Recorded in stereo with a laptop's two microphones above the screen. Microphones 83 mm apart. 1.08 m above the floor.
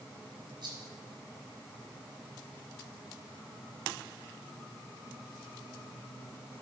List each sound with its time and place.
0.6 s a rattle: 55° right (ahead or behind), 4 m